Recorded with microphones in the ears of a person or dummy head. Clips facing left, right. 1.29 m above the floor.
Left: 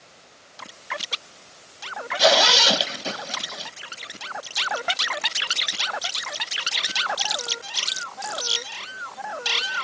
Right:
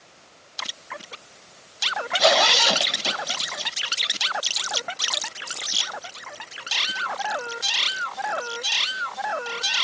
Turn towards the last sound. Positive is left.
turn(degrees=5)  # may be behind; listen again after turning